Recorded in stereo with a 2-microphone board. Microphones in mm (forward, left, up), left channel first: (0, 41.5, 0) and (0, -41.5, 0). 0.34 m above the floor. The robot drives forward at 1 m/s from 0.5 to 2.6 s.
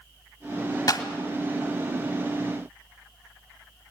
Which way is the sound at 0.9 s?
55° left (ahead or behind).